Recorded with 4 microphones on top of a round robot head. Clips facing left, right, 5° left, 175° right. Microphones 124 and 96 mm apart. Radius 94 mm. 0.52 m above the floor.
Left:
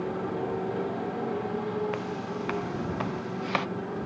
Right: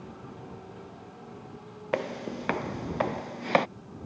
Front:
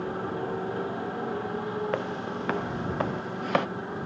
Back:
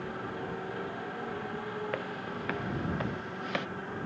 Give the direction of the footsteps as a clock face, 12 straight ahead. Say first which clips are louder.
Right 1 dB, front 6 dB; 2 o'clock.